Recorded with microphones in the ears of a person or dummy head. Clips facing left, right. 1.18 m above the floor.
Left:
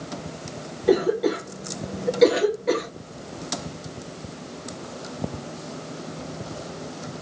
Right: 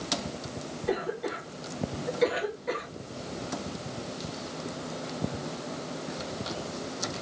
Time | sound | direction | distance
0.9 | a cough | 50° left (ahead or behind) | ?